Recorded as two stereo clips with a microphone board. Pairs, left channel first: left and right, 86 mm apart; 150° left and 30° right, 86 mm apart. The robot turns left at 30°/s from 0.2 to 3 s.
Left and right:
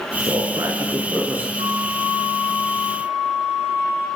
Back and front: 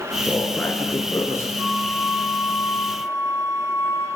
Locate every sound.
0.3 s a man speaking: 120° right, 3 m; by 1.5 s 160° right, 3 m
1.6 s a flute: 105° right, 5.5 m; by 4.1 s 145° right, 5.5 m